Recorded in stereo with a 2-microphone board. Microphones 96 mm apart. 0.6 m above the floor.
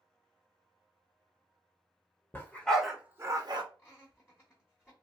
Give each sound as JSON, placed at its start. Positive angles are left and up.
{"t": 2.3, "sound": "a dog barking", "side_deg": 20, "distance_m": 0.8}
{"t": 3.8, "sound": "laughter", "side_deg": 20, "distance_m": 1.0}